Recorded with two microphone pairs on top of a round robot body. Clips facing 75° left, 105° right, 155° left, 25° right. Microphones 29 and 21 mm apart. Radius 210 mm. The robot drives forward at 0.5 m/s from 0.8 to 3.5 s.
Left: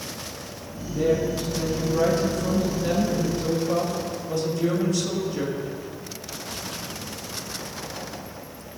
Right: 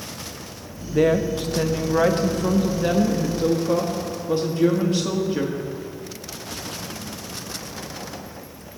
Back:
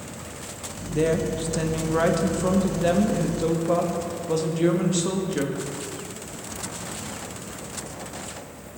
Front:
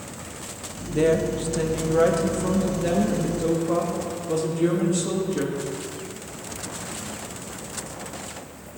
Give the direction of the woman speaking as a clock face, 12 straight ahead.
4 o'clock.